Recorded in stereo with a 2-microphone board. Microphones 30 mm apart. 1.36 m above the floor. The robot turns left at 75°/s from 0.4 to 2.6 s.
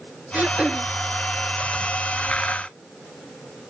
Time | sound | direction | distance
0.3 | throat clearing | 115° right | ?